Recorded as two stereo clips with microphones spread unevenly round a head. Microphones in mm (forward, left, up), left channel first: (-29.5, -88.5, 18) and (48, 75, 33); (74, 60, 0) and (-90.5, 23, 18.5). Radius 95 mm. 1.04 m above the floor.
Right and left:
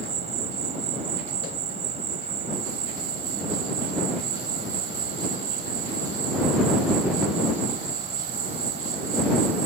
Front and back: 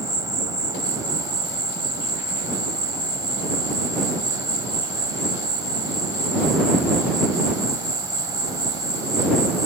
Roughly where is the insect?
Behind left.